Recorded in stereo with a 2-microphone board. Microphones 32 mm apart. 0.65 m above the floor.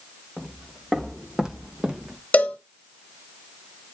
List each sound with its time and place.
0.4 s footsteps: 10° right (ahead or behind), 3 m; by 2.2 s 30° right (ahead or behind), 1.8 m
2.3 s a cowbell: 55° left (ahead or behind), 1.2 m